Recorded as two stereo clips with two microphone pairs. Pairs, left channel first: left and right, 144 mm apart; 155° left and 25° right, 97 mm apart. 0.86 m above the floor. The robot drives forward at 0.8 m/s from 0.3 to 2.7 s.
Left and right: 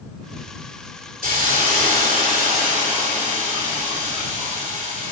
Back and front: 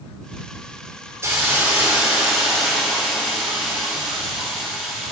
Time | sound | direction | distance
1.2 | a hiss | 85° right | 2.5 m